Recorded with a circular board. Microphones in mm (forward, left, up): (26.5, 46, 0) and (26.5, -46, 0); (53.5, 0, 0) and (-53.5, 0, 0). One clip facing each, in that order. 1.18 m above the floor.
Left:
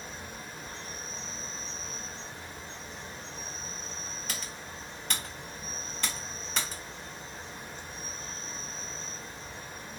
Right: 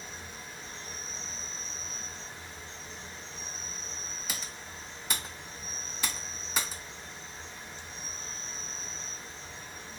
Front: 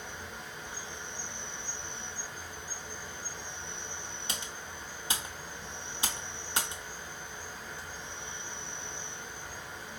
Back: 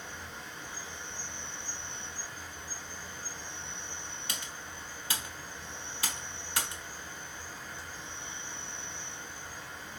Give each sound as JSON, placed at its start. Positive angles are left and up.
{"t": 0.0, "sound": "an insect", "azimuth_deg": 75, "distance_m": 1.1}
{"t": 4.3, "sound": "typing on a keyboard", "azimuth_deg": -15, "distance_m": 0.9}